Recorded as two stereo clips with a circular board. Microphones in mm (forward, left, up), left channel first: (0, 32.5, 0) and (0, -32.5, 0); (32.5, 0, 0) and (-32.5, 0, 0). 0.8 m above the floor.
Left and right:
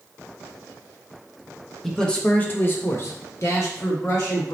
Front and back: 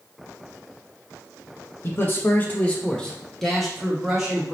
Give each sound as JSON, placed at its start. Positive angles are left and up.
{"t": 1.8, "sound": "a man speaking", "azimuth_deg": 10, "distance_m": 0.9}